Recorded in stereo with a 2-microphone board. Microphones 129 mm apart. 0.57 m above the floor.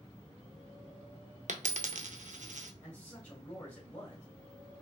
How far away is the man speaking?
About 2.5 m.